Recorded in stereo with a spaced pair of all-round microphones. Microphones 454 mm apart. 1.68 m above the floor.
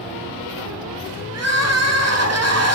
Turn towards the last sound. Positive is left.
turn(degrees=-35)  # may be behind; listen again after turning